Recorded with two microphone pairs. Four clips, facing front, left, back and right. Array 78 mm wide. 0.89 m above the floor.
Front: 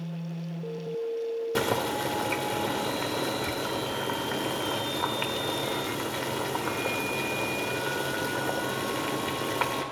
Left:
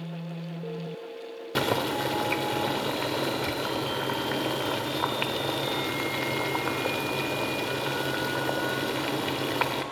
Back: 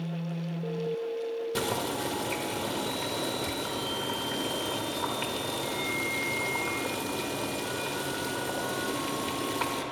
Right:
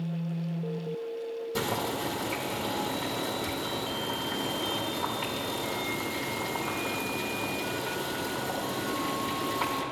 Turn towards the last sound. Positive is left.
turn(degrees=55)